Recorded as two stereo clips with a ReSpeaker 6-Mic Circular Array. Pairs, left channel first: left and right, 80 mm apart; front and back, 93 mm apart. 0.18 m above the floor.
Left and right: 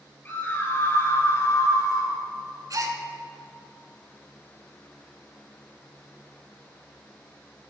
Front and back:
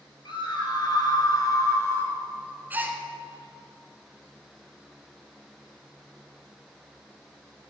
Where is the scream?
25° left, 3.5 m; by 2.2 s 60° left, 2 m.